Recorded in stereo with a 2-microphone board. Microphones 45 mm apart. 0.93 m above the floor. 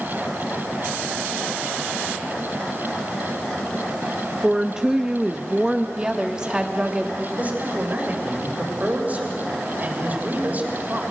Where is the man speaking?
40° right (ahead or behind), 3.5 m.